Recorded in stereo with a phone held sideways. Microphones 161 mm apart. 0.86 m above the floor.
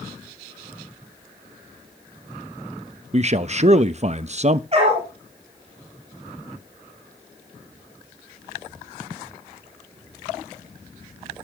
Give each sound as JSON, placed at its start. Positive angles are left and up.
{"t": 3.1, "sound": "a man speaking", "side_deg": -45, "distance_m": 0.6}
{"t": 4.7, "sound": "a dog barking", "side_deg": -40, "distance_m": 6.5}